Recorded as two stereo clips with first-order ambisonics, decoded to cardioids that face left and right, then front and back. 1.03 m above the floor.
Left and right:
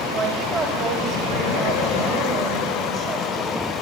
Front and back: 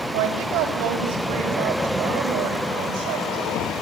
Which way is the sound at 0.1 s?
150° right.